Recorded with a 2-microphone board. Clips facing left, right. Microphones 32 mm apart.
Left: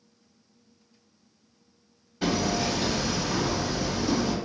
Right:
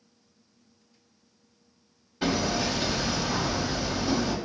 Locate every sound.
2.2 s hammering: 15° right (ahead or behind), 0.6 m